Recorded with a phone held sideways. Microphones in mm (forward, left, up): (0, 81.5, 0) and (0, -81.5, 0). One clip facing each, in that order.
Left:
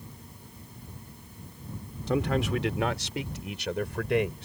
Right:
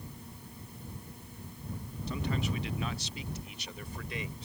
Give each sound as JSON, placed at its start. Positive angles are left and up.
{"t": 2.1, "sound": "a man speaking", "side_deg": 85}